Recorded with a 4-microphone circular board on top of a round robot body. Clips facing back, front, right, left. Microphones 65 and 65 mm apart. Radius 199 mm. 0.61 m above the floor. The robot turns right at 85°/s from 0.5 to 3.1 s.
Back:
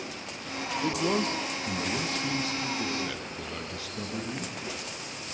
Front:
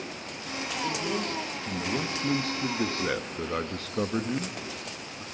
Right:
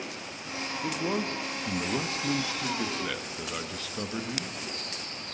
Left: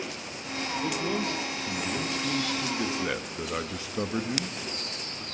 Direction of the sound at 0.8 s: 170° right.